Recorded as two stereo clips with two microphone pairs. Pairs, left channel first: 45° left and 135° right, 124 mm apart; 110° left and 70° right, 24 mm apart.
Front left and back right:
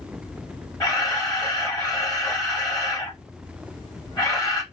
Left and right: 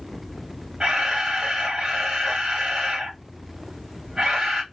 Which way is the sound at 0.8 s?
10° right.